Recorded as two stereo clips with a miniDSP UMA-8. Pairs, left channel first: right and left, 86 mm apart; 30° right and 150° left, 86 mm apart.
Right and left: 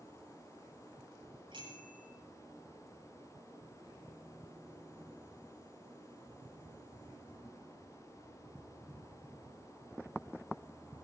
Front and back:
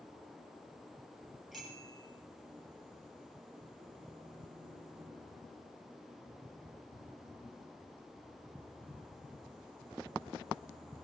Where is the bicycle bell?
60° left, 6.5 m.